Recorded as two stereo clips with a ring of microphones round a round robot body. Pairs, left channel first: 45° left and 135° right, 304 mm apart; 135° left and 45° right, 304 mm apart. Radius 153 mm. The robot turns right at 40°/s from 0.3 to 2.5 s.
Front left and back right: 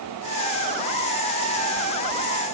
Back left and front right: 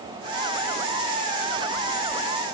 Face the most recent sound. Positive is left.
No sound to turn to.